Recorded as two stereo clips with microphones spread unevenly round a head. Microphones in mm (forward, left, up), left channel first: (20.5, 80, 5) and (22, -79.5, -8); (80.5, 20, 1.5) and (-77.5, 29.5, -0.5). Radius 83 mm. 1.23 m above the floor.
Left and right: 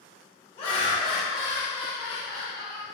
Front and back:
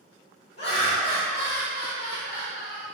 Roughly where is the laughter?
Ahead left.